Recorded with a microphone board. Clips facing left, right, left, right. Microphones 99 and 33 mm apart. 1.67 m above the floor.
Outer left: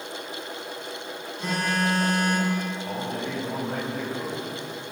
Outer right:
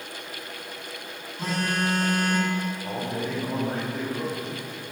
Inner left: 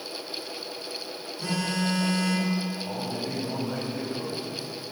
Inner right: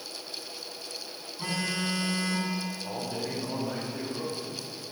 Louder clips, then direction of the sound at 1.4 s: Outer left 1 dB, inner left 3 dB; 45° right (ahead or behind).